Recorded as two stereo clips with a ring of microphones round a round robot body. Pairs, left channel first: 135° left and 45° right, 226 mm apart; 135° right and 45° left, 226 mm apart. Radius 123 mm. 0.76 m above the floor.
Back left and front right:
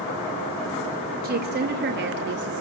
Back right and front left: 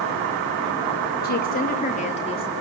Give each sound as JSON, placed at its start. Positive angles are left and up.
{"t": 1.2, "sound": "a woman speaking", "azimuth_deg": -90, "distance_m": 2.5}